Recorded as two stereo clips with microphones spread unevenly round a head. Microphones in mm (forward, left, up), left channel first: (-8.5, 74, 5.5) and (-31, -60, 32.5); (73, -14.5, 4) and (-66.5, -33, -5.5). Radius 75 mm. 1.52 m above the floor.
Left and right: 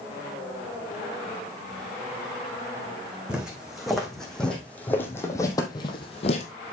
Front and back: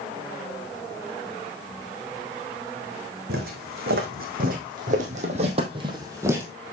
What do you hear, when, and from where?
3.3 s footsteps: straight behind, 3.5 m; by 6.5 s 110° left, 1.9 m